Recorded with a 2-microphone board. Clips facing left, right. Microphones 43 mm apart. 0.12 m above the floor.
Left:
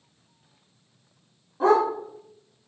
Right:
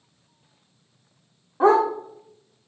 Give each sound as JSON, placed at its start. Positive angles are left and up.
{"t": 1.6, "sound": "a dog barking", "side_deg": -35, "distance_m": 3.0}